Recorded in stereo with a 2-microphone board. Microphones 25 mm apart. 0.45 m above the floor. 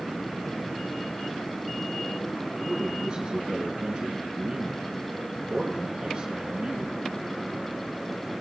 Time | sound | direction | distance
2.6 | a man speaking | 25° right (ahead or behind) | 4.5 m